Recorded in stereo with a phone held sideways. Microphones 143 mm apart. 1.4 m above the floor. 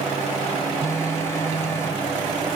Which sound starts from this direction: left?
A phone buzzing, at 0.8 s.